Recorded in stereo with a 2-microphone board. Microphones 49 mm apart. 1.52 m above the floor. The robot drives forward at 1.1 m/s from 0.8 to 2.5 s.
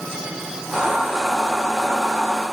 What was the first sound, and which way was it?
Only background noise.